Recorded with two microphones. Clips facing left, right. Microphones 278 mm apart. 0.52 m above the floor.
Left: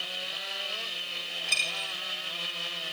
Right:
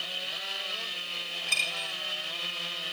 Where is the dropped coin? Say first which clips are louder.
Even; 65° right (ahead or behind), 2.5 m.